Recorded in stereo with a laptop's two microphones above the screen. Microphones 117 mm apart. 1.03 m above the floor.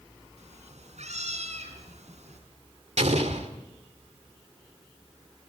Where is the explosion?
80° right, 2.5 m.